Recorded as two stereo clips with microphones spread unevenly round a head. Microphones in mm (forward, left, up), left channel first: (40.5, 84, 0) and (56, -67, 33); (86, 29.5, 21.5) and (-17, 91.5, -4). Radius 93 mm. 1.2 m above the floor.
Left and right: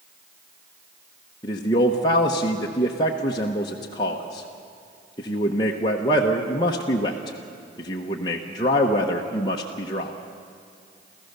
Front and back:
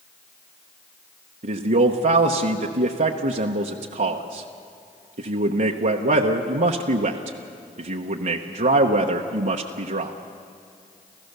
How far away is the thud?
I don't hear a thud.